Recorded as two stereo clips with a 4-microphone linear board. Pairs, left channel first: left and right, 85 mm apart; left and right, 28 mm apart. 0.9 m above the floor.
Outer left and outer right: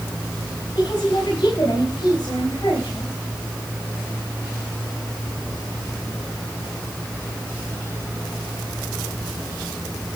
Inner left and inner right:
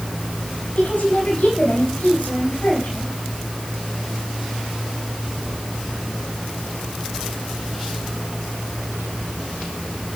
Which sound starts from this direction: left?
A woman speaking, at 0.8 s.